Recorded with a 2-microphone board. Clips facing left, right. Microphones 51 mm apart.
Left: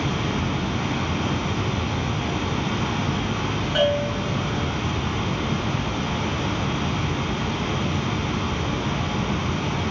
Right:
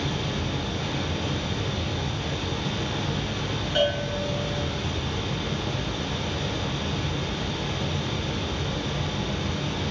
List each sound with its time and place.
0.0 s running water: 45° left (ahead or behind), 1.1 m
3.8 s a bell: 15° left (ahead or behind), 1.6 m